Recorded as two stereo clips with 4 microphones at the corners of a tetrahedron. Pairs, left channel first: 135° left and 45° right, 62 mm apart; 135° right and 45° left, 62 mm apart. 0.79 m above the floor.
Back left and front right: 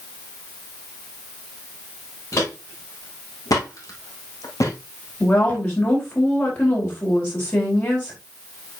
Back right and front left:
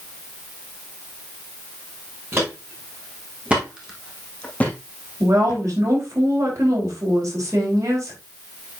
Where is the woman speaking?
80° left, 4.5 m.